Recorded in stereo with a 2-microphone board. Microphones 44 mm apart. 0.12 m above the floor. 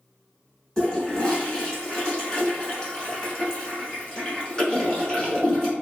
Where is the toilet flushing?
20° left (ahead or behind), 1.1 m.